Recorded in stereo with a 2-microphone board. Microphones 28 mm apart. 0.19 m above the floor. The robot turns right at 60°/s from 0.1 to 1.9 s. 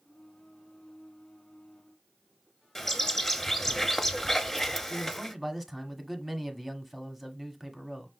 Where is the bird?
10° left (ahead or behind), 0.6 m.